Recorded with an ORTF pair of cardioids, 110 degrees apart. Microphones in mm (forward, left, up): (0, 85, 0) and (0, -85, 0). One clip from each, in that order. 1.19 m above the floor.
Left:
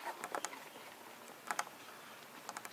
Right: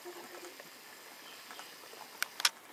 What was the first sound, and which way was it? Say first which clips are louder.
Tapping: left 5 dB; 55° left.